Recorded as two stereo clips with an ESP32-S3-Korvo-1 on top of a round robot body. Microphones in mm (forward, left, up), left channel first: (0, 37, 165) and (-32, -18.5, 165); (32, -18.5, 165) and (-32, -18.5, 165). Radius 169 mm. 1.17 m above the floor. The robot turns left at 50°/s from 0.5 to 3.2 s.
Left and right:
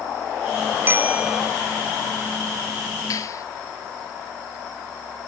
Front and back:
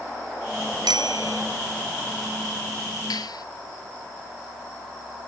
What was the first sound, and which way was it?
A bicycle bell, 175° right.